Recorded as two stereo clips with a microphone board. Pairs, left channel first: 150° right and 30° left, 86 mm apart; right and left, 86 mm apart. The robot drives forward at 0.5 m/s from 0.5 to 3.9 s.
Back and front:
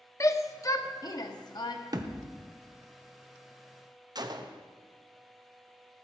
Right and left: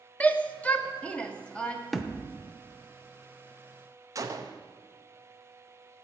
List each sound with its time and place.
0.2 s a shout: 150° right, 0.9 m; by 1.8 s 165° right, 1.3 m
1.9 s a thud: straight ahead, 0.8 m
4.2 s a gunshot: 50° left, 0.7 m